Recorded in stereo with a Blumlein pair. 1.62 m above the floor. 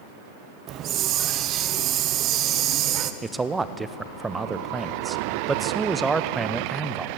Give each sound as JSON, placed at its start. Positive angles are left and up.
{"t": 0.7, "sound": "a hiss", "azimuth_deg": -35, "distance_m": 1.0}
{"t": 3.2, "sound": "a man speaking", "azimuth_deg": -10, "distance_m": 0.9}